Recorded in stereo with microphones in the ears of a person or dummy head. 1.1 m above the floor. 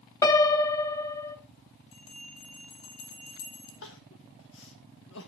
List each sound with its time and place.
0.2 s a piano: 15° left (ahead or behind), 0.8 m
1.9 s a bell: 70° left (ahead or behind), 3 m
3.8 s crying: 65° left (ahead or behind), 1.1 m